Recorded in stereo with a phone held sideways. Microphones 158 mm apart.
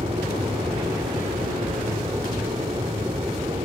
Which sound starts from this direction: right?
An aircraft, at 0.0 s.